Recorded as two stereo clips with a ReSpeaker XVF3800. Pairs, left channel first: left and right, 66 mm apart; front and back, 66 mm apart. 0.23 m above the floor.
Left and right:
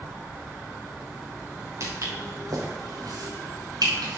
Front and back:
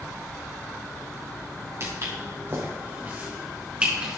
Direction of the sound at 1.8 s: 135° right.